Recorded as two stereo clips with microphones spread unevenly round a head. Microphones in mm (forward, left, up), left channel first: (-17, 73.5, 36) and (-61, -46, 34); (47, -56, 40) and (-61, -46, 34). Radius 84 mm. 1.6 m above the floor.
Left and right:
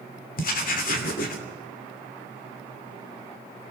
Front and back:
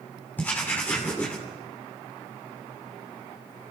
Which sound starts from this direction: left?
Writing, at 0.4 s.